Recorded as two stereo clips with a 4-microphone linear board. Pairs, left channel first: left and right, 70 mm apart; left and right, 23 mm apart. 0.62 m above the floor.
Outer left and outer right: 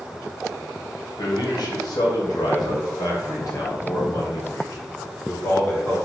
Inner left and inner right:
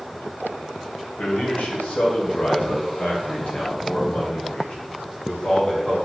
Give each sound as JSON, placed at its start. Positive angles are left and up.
{"t": 1.2, "sound": "a man speaking", "side_deg": 75, "distance_m": 2.5}